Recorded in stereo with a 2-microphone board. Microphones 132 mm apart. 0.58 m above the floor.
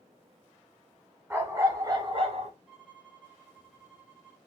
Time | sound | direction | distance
1.3 | a dog barking | 15° right (ahead or behind) | 1.2 m
2.7 | a violin | 5° right (ahead or behind) | 1.1 m